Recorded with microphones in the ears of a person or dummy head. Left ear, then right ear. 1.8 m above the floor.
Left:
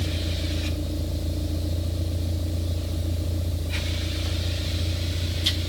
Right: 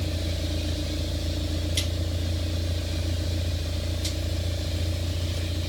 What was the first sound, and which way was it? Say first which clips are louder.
A vehicle: left 1 dB; 15° right (ahead or behind).